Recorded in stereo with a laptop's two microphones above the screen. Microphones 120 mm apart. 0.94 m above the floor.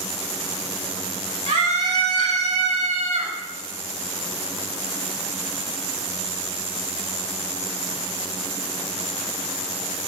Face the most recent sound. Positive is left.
turn(degrees=-75)  # may be behind; listen again after turning